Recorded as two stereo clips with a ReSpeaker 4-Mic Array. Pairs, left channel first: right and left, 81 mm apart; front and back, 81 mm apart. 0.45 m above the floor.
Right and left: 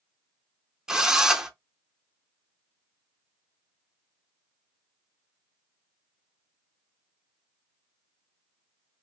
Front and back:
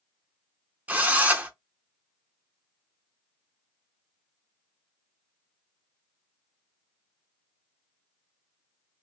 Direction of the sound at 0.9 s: 155° left.